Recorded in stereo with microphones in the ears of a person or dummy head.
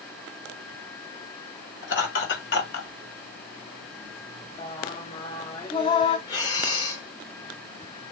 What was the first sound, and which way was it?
Laughter, 75° left (ahead or behind).